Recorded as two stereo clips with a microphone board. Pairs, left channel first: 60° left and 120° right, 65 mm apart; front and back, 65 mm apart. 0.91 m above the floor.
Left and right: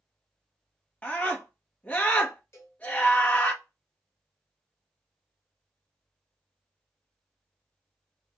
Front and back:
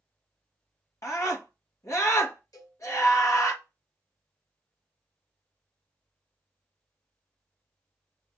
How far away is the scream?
About 1.5 m.